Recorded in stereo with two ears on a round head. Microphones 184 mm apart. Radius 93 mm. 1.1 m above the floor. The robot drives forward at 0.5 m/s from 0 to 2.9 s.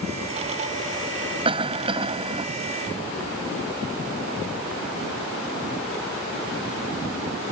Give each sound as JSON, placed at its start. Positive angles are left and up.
{"t": 1.4, "sound": "a cough", "side_deg": -25}